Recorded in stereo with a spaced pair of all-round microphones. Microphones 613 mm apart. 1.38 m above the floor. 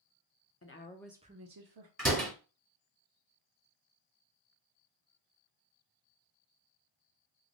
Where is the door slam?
25° right (ahead or behind), 1.5 m.